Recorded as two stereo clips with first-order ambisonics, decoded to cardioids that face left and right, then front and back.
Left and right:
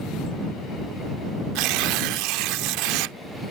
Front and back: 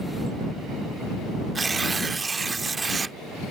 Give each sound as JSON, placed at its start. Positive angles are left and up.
{"t": 1.6, "sound": "tearing paper", "azimuth_deg": -105}